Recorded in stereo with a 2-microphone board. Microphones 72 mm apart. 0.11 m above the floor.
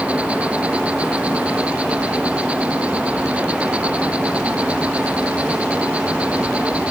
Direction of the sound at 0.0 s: 20° right (ahead or behind).